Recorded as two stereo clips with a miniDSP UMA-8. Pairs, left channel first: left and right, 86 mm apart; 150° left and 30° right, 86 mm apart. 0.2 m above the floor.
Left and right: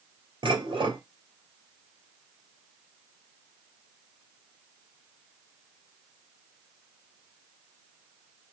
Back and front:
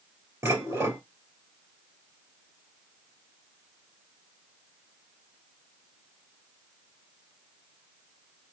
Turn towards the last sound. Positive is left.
turn(degrees=-90)